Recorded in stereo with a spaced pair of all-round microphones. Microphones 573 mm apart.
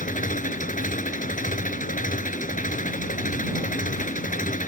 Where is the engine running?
15° left (ahead or behind).